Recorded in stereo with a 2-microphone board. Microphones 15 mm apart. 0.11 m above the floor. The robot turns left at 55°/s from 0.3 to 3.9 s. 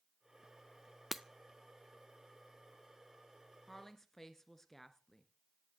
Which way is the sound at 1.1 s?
15° right (ahead or behind).